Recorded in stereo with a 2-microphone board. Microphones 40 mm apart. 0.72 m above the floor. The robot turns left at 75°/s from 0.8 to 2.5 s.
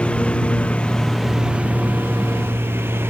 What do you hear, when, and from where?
0.0 s a lawn mower: 30° left; by 3.1 s 100° right